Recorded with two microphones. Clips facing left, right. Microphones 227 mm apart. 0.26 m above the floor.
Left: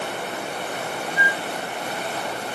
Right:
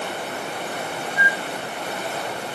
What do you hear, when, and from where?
1.2 s a flute: 50° right (ahead or behind), 0.9 m